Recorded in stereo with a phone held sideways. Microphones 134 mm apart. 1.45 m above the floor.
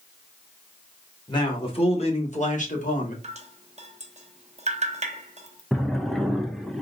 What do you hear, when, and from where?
1.3 s a man speaking: 30° left (ahead or behind), 1.6 m; by 3.1 s 70° left (ahead or behind), 1.3 m
3.2 s dripping: 55° right (ahead or behind), 0.6 m
5.7 s a drawer: centre (ahead or behind), 0.6 m